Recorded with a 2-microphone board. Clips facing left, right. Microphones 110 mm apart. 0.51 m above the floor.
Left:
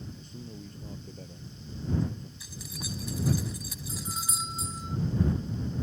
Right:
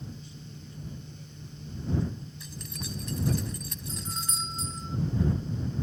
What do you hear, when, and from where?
0.2 s a man speaking: 45° left (ahead or behind)
2.4 s keys jangling: 5° left (ahead or behind)
3.9 s a doorbell: 10° left (ahead or behind)